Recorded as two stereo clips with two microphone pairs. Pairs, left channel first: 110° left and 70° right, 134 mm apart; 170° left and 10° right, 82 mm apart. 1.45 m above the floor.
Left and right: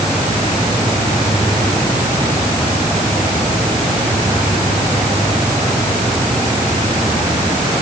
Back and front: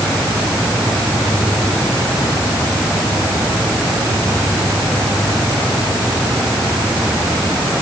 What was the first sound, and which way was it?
Only background noise.